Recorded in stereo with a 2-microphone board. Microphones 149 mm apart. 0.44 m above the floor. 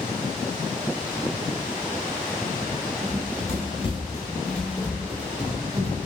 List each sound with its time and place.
3.0 s running footsteps: 65° left (ahead or behind), 0.8 m; by 6.1 s 30° right (ahead or behind), 1.2 m